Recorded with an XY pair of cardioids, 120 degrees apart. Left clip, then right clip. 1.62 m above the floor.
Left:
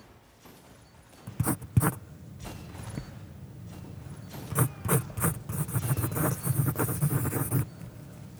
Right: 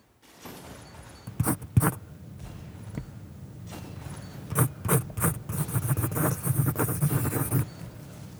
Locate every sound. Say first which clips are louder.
1.3 s writing: right 2 dB; 10° right